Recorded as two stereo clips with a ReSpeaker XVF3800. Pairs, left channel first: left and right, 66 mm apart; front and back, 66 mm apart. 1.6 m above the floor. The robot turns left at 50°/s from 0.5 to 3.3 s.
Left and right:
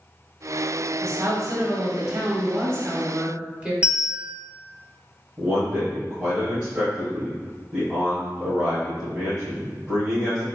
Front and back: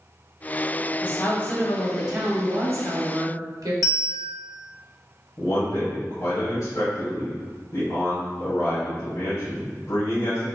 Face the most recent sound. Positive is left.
turn(degrees=-25)